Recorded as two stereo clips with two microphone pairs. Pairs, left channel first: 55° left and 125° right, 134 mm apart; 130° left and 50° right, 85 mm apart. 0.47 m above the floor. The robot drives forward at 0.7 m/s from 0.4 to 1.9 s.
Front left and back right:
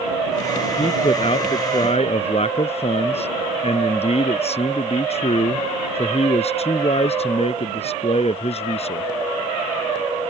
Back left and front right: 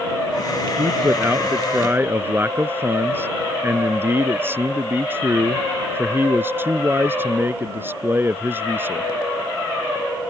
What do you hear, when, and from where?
0.8 s a man speaking: 15° left